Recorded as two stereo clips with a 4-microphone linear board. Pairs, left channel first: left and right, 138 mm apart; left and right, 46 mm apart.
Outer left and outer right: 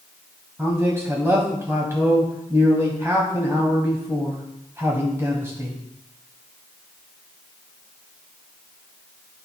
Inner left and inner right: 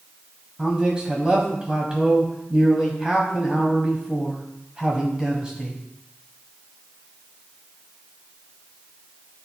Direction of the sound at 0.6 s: 20° right (ahead or behind).